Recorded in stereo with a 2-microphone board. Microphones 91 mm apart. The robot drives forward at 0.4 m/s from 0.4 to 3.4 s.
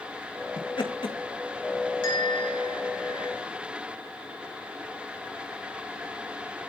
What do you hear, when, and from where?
0.6 s laughter: 60° left (ahead or behind), 3 m; by 1.1 s 65° left (ahead or behind), 3 m
2.0 s a bell: 55° left (ahead or behind), 5 m; by 3.3 s 60° left (ahead or behind), 4.5 m